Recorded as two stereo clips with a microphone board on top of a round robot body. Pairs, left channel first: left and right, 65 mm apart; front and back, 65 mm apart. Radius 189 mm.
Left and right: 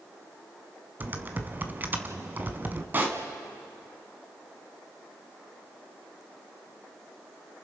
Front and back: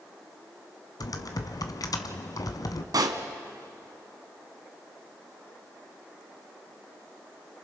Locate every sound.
1.0 s typing on a keyboard: 30° right, 1.1 m
2.9 s a pop: 155° right, 1.3 m